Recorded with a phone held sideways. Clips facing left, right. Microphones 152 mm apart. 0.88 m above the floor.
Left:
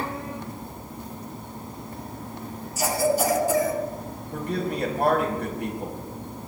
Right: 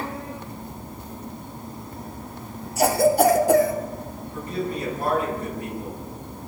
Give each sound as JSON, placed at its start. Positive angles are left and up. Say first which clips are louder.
{"t": 2.8, "sound": "a cough", "louder": "right 5 dB", "side_deg": -60, "distance_m": 2.5}
{"t": 4.3, "sound": "a man speaking", "louder": "left 1 dB", "side_deg": 70, "distance_m": 4.5}